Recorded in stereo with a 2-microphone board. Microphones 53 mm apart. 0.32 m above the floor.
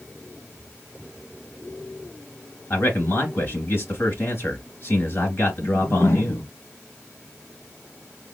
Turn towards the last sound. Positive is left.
turn(degrees=65)  # may be behind; listen again after turning